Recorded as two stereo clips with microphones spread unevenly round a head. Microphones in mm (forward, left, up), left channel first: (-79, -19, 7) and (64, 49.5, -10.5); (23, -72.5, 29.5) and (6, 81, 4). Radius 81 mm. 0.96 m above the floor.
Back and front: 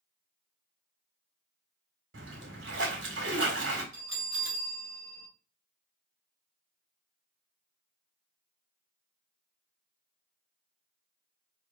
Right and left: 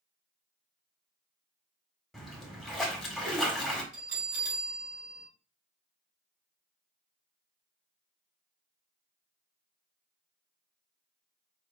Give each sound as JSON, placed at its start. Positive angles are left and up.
{"t": 2.1, "sound": "a splash", "azimuth_deg": 5, "distance_m": 1.7}
{"t": 3.9, "sound": "a bell", "azimuth_deg": 55, "distance_m": 3.5}